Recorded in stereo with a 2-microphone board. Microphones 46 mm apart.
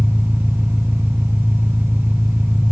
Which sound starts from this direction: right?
An engine running, at 0.0 s.